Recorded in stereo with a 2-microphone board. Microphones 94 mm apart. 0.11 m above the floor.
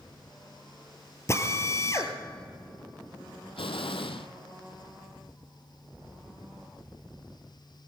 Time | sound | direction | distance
1.3 | a drill | 30° left (ahead or behind) | 1.7 m
3.6 | an explosion | 75° left (ahead or behind) | 1.0 m